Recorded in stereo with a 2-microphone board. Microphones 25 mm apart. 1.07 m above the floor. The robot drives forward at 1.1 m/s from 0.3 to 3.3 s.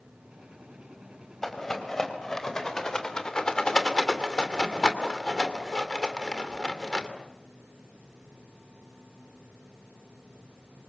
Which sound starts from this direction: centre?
A rattle, at 1.4 s.